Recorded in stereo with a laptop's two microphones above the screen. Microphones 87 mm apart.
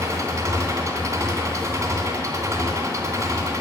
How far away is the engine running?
About 2.5 m.